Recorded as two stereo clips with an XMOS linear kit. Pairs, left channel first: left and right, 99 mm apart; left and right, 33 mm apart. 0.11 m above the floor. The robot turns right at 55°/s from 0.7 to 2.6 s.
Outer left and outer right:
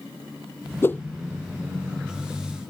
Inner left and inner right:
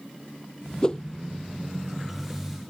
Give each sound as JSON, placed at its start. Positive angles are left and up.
{"t": 0.8, "sound": "a whoosh", "side_deg": 25}